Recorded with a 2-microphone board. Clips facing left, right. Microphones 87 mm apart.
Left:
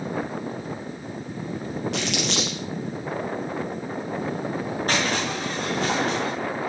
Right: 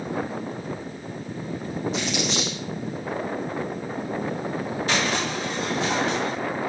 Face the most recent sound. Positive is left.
turn(degrees=45)  # may be behind; listen again after turning